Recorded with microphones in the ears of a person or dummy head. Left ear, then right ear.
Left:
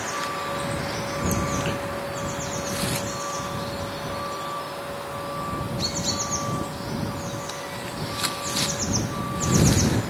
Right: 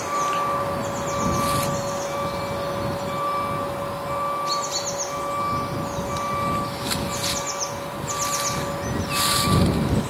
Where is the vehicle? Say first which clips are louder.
Right 5 dB; 70° right (ahead or behind); by 10.1 s 75° right (ahead or behind).